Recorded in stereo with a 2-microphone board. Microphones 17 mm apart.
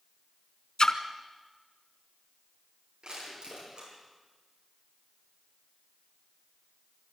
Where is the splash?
60° left (ahead or behind), 1.1 m.